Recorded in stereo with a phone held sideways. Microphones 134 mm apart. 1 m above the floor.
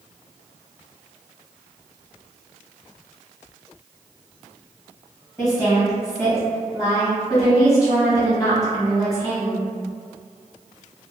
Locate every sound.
5.4 s a woman speaking: 25° left (ahead or behind), 1.2 m